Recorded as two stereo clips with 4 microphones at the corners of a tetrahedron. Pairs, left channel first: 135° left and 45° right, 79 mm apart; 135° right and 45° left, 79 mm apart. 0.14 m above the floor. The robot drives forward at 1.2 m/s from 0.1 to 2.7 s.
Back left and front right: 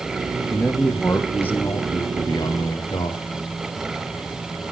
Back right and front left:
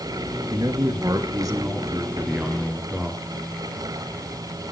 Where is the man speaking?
50° left, 3 m; by 3.2 s 115° left, 2.5 m.